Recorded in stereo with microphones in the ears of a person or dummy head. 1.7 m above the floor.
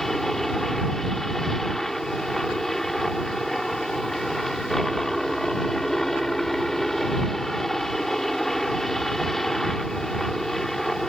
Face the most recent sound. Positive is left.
turn(degrees=5)  # may be behind; listen again after turning